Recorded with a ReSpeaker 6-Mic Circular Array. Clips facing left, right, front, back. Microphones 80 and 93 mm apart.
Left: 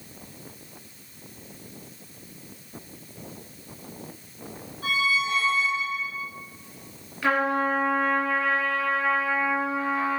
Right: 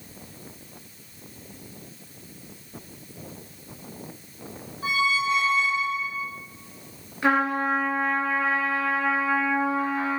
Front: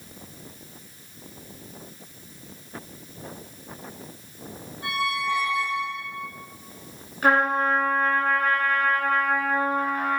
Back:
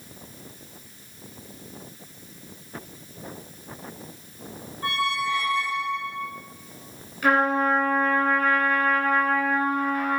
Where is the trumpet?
30° right, 0.7 m.